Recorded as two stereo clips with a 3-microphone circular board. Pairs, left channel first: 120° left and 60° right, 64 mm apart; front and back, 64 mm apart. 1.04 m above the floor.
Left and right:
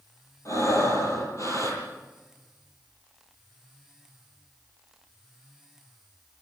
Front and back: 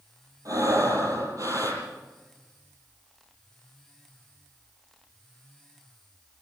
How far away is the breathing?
About 10 m.